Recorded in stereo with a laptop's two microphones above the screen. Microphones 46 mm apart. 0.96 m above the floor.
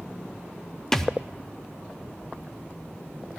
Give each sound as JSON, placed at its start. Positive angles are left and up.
{"t": 0.9, "sound": "a thud", "side_deg": 10, "distance_m": 0.6}